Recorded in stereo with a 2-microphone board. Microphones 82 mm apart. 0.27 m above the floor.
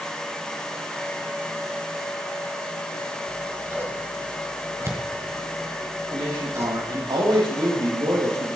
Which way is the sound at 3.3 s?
35° right (ahead or behind).